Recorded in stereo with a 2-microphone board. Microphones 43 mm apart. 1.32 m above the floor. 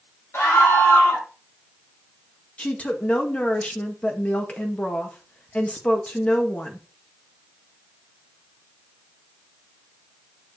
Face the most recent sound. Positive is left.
turn(degrees=30)  # may be behind; listen again after turning